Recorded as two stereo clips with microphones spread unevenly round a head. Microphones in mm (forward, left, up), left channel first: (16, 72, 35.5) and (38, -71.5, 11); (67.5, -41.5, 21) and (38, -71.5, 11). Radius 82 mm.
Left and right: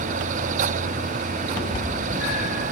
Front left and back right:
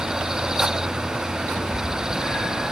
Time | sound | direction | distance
1.5 | a cat meowing | 60° left | 3 m